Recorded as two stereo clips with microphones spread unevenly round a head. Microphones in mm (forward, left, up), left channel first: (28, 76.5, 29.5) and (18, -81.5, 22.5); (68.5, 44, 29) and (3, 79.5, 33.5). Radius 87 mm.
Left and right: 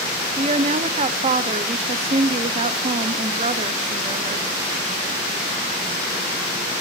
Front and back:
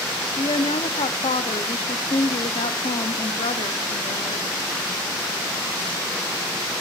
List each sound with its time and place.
0.4 s a woman speaking: 40° right, 0.7 m